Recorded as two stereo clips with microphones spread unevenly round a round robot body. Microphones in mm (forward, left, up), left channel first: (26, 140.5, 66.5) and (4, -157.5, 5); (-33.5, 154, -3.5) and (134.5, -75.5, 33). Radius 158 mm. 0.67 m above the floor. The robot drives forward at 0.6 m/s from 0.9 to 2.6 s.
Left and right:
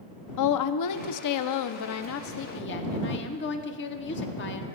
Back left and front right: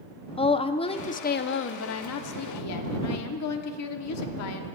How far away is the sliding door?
I don't hear a sliding door.